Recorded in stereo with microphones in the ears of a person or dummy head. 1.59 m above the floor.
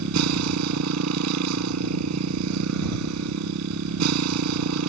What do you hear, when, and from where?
0.0 s a motorcycle: 85° right